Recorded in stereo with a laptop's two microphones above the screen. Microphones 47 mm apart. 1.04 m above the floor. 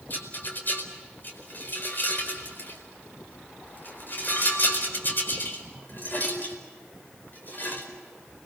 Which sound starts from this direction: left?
A rattle, at 0.1 s.